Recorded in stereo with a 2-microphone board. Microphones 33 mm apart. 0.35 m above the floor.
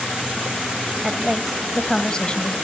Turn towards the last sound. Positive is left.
turn(degrees=35)  # may be behind; listen again after turning